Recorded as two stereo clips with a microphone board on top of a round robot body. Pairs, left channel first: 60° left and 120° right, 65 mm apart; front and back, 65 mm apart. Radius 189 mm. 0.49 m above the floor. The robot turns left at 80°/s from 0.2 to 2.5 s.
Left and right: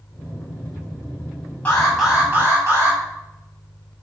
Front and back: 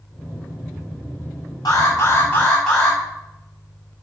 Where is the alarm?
5° right, 7.5 m; by 3.0 s 75° right, 7.5 m.